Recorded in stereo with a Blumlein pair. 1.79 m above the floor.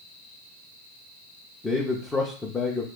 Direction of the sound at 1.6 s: 10° left.